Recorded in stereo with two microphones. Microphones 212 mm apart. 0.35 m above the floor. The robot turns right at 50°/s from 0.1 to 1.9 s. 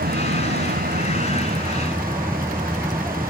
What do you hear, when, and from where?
0.0 s an aircraft: 105° right; by 3.3 s 15° right